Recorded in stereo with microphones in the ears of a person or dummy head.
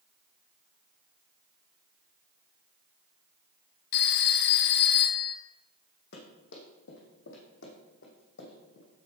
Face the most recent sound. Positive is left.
turn(degrees=75)  # may be behind; listen again after turning